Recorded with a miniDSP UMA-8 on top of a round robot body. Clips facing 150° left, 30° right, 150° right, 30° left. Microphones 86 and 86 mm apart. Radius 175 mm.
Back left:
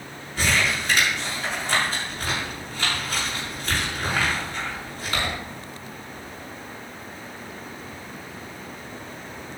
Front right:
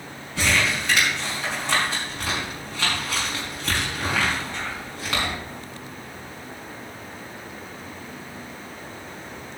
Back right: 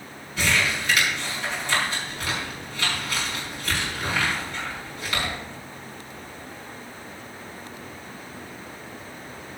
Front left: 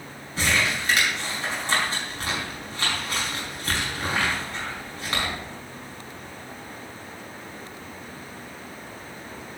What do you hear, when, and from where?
0.4 s crumpling: 25° right, 5 m